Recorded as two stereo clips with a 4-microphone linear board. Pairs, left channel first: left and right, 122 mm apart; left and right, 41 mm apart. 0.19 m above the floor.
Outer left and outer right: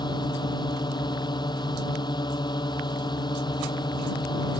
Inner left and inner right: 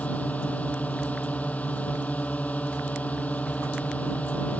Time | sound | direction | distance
0.0 | a drone | 35° left (ahead or behind) | ?